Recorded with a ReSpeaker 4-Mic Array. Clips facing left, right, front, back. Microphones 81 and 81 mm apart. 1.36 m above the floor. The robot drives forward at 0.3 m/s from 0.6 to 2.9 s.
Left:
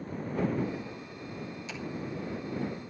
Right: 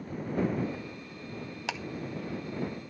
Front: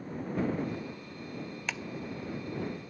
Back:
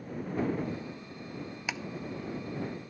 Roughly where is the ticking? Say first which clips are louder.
Right 6 dB, back 2 dB; right.